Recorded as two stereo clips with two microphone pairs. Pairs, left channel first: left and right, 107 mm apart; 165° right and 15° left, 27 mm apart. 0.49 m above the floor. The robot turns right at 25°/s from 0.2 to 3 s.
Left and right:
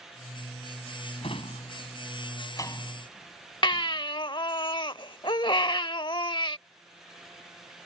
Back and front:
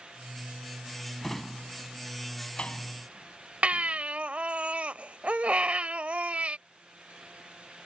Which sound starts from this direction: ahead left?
A baby crying, at 3.6 s.